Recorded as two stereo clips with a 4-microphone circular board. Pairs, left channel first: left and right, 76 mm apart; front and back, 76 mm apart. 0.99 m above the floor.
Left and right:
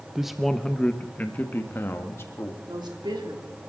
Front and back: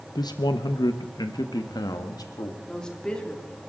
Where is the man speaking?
10° right, 0.7 m; by 2.6 s 35° left, 1.8 m.